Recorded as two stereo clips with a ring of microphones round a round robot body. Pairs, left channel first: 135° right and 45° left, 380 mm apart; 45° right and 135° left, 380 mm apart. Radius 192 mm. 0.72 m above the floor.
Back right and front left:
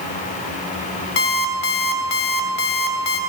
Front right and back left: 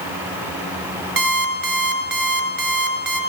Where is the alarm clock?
165° right, 2 m.